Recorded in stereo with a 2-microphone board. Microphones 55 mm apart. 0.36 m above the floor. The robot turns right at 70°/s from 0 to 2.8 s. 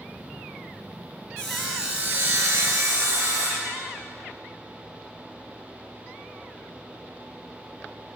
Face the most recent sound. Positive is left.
turn(degrees=-95)